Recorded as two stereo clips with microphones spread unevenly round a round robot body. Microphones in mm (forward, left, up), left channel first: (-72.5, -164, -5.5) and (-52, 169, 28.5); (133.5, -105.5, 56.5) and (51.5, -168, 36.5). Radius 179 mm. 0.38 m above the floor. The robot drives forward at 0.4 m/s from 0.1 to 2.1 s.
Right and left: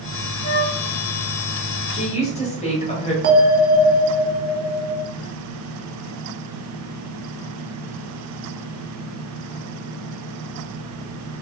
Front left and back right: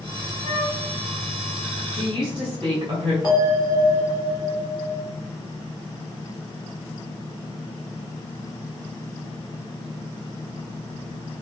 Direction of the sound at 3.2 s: 135° left.